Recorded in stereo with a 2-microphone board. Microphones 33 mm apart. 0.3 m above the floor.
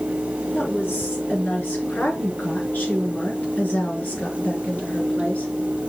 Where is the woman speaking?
75° left (ahead or behind), 4 m; by 5.5 s 55° left (ahead or behind), 4 m.